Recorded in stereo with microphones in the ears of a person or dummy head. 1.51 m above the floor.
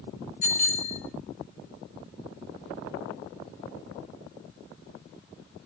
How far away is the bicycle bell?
About 3 m.